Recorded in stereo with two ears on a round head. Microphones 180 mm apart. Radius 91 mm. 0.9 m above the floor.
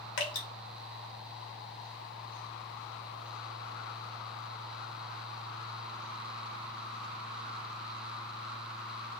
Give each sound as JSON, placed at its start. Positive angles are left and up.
{"t": 0.2, "sound": "dripping", "side_deg": 80, "distance_m": 1.0}